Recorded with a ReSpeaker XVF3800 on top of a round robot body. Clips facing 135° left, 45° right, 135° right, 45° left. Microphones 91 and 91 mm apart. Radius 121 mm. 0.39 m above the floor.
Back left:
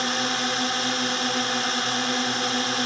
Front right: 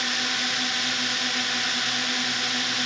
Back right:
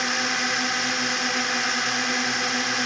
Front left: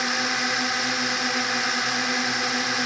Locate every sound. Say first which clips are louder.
0.0 s a drone: back left 4 dB, even; 130° left